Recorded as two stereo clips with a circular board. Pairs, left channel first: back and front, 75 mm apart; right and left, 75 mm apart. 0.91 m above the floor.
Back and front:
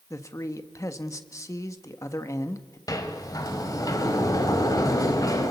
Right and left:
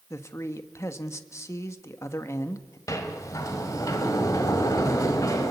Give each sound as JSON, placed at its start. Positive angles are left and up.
{"t": 0.1, "sound": "a man speaking", "azimuth_deg": -135, "distance_m": 1.5}
{"t": 2.9, "sound": "a sliding door", "azimuth_deg": -135, "distance_m": 2.5}